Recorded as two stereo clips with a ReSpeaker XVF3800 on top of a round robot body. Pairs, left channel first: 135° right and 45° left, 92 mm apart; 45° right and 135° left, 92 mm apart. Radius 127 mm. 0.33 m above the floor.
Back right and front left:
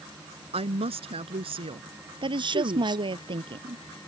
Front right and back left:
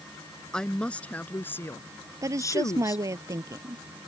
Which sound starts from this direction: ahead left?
A woman speaking, at 0.5 s.